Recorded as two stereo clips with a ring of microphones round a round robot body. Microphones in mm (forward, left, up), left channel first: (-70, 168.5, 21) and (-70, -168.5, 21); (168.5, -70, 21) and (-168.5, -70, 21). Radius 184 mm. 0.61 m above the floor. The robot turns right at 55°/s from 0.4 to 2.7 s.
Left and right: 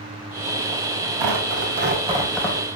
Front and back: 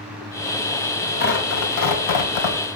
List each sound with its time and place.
1.2 s tearing paper: 60° right, 4 m; by 2.8 s 20° left, 4 m